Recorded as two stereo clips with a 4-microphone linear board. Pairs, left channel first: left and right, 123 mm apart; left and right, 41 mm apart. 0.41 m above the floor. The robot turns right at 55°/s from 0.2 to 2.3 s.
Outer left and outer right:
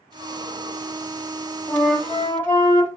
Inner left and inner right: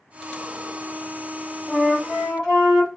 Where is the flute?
Centre (ahead or behind), 1.4 m; by 2.9 s 15° left (ahead or behind), 1.4 m.